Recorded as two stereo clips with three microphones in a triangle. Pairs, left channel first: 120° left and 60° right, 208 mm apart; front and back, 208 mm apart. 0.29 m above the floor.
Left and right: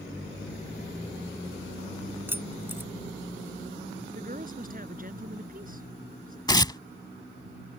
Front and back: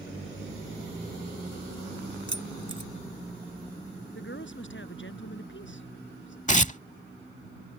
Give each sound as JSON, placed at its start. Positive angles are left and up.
{"t": 2.3, "sound": "keys jangling", "azimuth_deg": 20}
{"t": 4.2, "sound": "a woman speaking", "azimuth_deg": -15}
{"t": 6.5, "sound": "tearing paper", "azimuth_deg": 55}